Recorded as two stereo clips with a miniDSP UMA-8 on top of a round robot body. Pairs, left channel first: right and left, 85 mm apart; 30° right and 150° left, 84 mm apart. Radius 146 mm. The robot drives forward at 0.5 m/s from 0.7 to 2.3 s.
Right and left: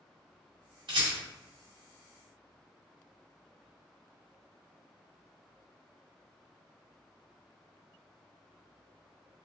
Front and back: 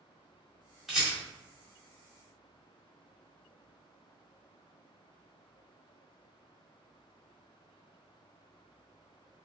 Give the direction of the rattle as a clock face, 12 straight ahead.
10 o'clock.